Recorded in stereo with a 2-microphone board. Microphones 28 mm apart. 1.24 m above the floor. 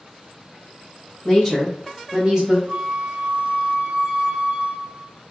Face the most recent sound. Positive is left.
turn(degrees=-40)  # may be behind; listen again after turning